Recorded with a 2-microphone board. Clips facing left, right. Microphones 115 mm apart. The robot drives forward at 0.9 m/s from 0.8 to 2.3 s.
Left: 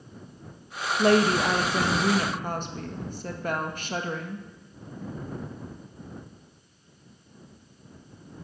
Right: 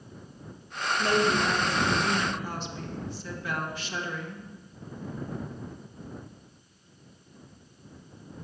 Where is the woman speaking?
60° left (ahead or behind), 1.1 m; by 4.5 s 45° left (ahead or behind), 1.3 m.